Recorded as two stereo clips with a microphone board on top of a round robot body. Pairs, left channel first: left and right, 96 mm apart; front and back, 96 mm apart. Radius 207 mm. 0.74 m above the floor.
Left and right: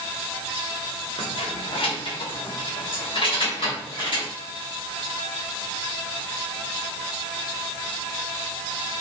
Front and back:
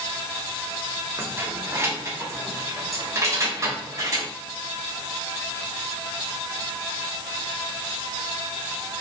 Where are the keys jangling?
110° left, 2 m; by 4.3 s 120° left, 4 m.